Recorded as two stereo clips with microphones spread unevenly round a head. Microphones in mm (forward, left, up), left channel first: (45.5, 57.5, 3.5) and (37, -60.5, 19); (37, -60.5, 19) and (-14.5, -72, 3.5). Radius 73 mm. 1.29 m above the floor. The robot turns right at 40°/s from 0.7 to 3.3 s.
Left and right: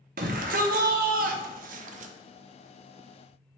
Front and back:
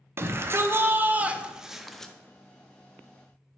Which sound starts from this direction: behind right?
A shout, at 0.2 s.